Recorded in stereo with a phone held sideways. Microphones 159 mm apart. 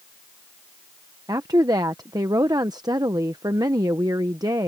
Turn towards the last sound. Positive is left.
turn(degrees=-25)  # may be behind; listen again after turning